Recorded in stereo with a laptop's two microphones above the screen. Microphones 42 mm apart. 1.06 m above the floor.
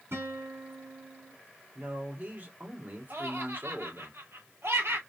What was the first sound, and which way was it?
A guitar, 70° right (ahead or behind).